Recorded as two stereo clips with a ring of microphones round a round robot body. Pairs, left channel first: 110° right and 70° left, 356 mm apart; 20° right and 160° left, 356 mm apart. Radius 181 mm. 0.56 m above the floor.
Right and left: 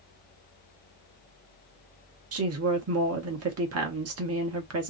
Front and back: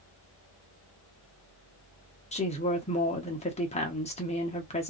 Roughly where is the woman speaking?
Ahead left.